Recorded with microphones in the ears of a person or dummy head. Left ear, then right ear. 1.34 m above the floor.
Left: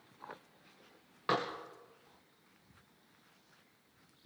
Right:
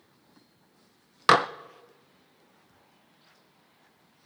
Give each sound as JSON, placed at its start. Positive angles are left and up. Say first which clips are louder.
{"t": 1.3, "sound": "dishes clattering", "louder": "right 14 dB", "side_deg": -60, "distance_m": 0.5}